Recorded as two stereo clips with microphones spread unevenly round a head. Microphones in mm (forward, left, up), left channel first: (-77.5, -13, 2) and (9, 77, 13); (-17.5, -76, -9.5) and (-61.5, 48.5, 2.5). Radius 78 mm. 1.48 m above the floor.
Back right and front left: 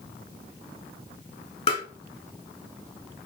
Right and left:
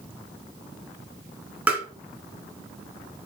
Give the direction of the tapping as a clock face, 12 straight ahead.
6 o'clock.